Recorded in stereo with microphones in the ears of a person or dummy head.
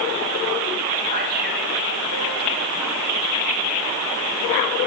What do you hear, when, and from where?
1.1 s a man speaking: 55° right (ahead or behind), 3 m